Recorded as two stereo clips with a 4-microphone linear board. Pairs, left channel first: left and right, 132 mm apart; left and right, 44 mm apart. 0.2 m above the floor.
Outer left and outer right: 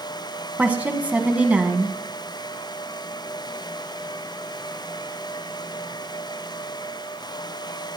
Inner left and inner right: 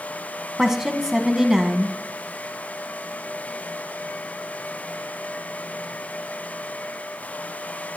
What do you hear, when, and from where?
0.6 s a woman speaking: 10° right (ahead or behind), 1.3 m